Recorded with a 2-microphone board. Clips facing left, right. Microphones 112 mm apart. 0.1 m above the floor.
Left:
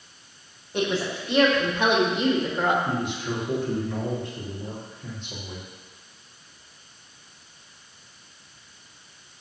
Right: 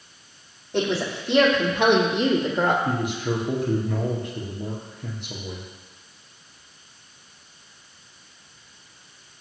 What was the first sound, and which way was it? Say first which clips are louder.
A woman speaking: right 2 dB; 70° right (ahead or behind).